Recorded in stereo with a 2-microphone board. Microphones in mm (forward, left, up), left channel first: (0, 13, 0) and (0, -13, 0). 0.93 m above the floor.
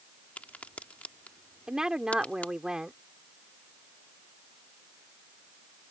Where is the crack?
75° left (ahead or behind).